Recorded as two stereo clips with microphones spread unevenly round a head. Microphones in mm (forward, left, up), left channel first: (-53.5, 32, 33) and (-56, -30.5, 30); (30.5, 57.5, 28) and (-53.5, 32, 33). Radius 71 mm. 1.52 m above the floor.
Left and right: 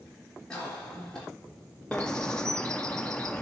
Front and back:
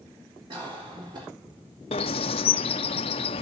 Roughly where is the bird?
Ahead.